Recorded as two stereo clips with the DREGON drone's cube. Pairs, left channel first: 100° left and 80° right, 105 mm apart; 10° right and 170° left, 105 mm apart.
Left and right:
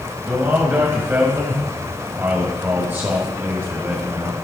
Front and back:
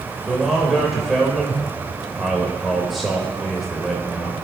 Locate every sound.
0.3 s a man speaking: 105° right, 1.3 m